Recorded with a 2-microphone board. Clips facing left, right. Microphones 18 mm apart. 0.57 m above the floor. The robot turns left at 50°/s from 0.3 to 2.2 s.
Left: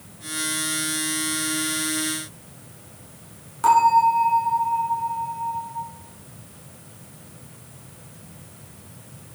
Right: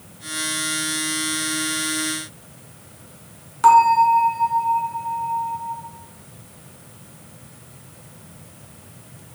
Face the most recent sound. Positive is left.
turn(degrees=-20)  # may be behind; listen again after turning